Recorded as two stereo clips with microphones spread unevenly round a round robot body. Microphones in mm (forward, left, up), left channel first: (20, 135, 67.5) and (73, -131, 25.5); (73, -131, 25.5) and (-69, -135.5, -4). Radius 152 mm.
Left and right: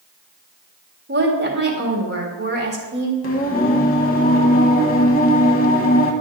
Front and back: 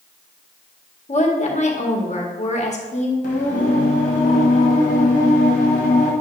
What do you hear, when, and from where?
1.1 s a woman speaking: 35° right, 2 m
3.2 s singing: 45° left, 1.2 m